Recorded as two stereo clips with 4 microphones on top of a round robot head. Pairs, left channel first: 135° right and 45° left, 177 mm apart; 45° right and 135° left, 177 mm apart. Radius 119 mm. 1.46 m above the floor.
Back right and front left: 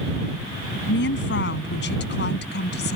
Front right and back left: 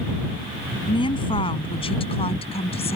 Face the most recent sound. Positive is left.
turn(degrees=-105)